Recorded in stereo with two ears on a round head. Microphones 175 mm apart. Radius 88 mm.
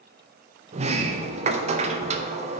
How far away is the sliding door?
About 0.5 m.